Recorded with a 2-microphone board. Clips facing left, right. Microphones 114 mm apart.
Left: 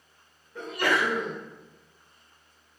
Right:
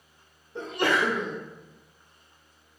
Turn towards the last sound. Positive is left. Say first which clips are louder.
# right 1 dB
turn(degrees=-25)  # may be behind; listen again after turning